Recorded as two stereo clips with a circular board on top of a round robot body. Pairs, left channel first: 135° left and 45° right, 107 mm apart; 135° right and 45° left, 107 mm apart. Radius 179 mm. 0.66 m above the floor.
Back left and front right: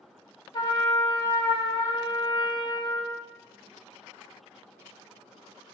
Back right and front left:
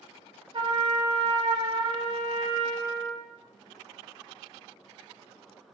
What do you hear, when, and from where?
0.5 s a trumpet: 85° left, 0.9 m